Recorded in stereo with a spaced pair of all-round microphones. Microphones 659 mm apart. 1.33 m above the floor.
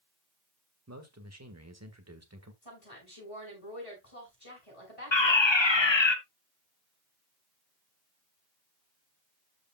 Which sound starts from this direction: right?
A man speaking, at 0.9 s.